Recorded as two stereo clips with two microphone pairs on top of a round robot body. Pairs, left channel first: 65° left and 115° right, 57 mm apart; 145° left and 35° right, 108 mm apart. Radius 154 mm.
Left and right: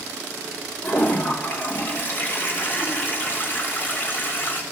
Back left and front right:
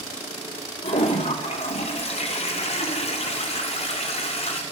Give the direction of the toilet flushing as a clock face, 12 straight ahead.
8 o'clock.